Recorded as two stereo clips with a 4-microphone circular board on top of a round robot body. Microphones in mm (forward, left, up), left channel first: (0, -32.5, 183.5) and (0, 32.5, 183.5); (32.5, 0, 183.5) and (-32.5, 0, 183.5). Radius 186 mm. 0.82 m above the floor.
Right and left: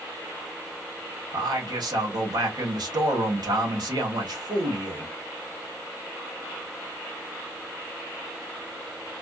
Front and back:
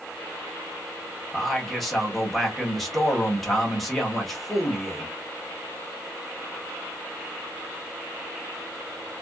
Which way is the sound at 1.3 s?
90° left.